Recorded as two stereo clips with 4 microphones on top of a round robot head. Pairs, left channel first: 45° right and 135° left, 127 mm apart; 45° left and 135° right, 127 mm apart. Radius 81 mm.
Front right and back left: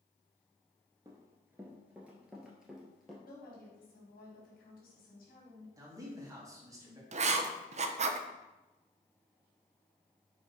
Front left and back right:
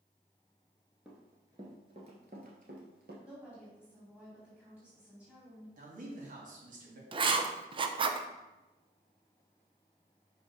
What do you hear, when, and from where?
1.1 s running footsteps: 150° left, 1.2 m; by 3.1 s 130° right, 1.9 m
3.2 s a woman speaking: 55° right, 4 m
5.8 s a man speaking: 160° right, 2.5 m
7.1 s writing: 170° left, 0.6 m